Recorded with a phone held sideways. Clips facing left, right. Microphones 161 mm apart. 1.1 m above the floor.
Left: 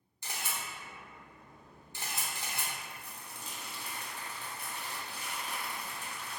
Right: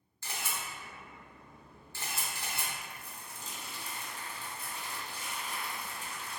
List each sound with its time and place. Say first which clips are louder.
0.2 s a camera shutter: right 1 dB; 15° left (ahead or behind), 0.7 m
2.8 s crumpling: even; 65° left (ahead or behind), 0.6 m